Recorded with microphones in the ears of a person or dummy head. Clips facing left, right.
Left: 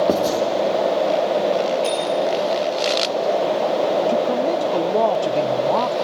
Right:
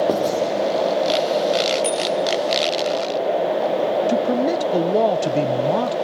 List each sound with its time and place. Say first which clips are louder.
0.1 s writing: left 1 dB; 10° left (ahead or behind), 3 m
1.8 s a bicycle bell: even; 35° right (ahead or behind), 7.5 m
4.1 s a man speaking: even; 20° right (ahead or behind), 0.5 m